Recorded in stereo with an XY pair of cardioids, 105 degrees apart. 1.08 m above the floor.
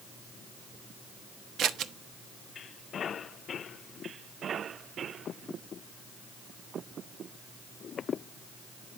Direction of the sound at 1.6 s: 70° right.